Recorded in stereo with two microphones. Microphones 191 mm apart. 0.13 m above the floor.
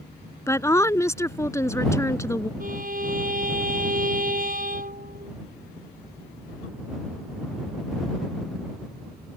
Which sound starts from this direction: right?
A violin, at 2.6 s.